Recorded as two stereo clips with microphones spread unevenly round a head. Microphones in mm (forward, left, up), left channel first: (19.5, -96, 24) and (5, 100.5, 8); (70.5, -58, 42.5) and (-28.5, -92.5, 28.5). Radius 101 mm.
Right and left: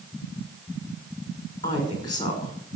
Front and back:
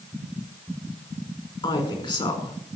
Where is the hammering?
I don't hear hammering.